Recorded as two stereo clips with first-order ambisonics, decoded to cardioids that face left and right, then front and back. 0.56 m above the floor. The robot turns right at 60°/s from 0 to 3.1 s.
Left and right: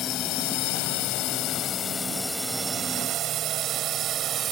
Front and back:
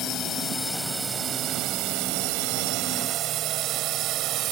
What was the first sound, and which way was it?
A drone, 45° left.